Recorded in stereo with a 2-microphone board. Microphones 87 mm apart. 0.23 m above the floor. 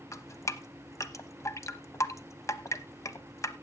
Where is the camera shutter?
I don't hear a camera shutter.